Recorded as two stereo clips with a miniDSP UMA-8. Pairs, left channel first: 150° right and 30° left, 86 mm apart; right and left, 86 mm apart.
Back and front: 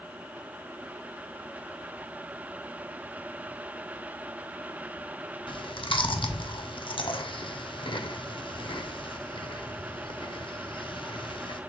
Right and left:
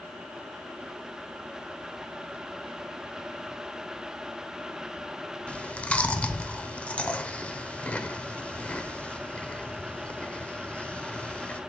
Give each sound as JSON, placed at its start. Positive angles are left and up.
{"t": 5.5, "sound": "chewing", "azimuth_deg": -165, "distance_m": 0.5}